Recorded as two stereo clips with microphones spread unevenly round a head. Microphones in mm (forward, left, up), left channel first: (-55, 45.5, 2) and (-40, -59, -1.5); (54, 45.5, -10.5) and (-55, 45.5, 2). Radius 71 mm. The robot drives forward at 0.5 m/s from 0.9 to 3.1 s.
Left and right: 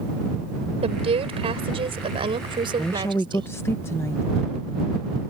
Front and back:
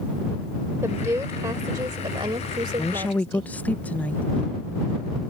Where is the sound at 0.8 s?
110° right; by 3.5 s 120° right.